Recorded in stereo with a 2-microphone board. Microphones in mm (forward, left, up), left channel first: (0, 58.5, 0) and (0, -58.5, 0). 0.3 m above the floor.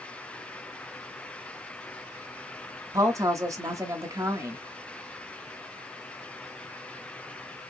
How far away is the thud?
I don't hear a thud.